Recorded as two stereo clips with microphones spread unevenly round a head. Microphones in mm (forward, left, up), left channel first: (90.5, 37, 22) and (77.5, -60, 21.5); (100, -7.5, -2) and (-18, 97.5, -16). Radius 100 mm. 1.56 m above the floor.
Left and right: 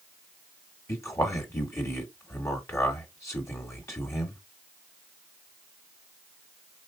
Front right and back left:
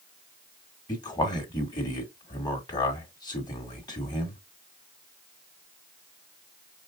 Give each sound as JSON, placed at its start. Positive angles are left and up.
{"t": 0.9, "sound": "a man speaking", "azimuth_deg": 20, "distance_m": 1.9}